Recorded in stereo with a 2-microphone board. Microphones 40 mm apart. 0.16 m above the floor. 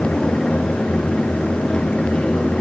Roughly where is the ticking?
No ticking in this recording.